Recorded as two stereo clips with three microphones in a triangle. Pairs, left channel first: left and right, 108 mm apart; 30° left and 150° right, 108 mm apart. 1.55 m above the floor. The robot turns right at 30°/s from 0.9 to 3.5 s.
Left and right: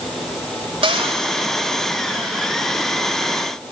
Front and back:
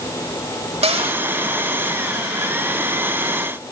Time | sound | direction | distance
0.8 | a cupboard door | 125° right | 3.5 m